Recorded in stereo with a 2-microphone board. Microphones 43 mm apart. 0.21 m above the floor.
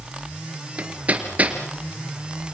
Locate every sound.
0.8 s hammering: 35° right (ahead or behind), 3 m